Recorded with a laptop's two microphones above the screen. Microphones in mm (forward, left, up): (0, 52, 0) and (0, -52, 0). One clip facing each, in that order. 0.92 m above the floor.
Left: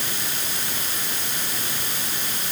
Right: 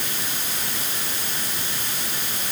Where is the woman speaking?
I don't hear a woman speaking.